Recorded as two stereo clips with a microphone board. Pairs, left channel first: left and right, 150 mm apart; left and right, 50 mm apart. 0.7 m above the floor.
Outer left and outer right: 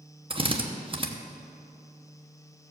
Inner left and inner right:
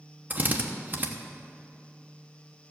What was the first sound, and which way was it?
A drill, 35° right (ahead or behind).